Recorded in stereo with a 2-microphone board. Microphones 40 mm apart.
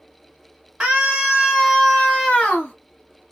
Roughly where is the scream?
Right.